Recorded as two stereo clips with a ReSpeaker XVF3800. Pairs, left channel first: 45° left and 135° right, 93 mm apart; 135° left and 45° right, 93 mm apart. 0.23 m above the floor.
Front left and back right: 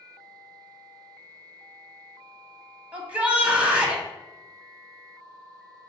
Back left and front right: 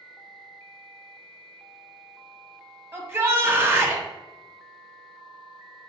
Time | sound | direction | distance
2.9 | a shout | 75° right | 1.1 m